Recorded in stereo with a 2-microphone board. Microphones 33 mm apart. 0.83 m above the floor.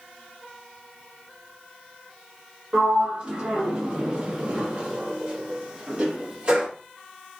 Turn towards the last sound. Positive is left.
turn(degrees=-35)  # may be behind; listen again after turning